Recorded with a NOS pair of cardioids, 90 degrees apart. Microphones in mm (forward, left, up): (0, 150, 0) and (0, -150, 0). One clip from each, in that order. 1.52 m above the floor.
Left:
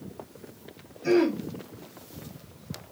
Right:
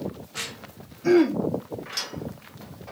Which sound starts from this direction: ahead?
Throat clearing, at 1.0 s.